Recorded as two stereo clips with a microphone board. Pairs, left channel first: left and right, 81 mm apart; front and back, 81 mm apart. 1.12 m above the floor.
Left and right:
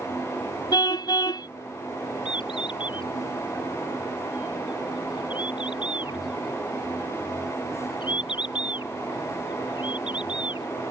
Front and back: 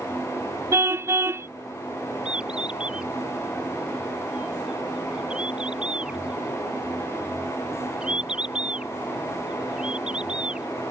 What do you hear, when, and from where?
0.7 s a car horn: 125° left
2.2 s a bird: 100° left